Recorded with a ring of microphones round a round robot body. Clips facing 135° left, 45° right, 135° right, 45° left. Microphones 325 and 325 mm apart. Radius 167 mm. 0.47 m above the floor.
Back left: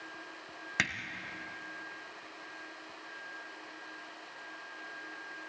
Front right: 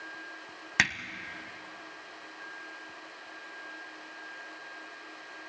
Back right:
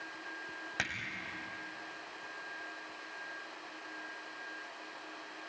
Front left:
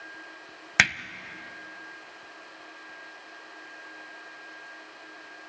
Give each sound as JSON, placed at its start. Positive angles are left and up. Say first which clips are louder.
{"t": 0.8, "sound": "hammering", "louder": "front right 3 dB, front left 11 dB", "azimuth_deg": 30, "distance_m": 0.9}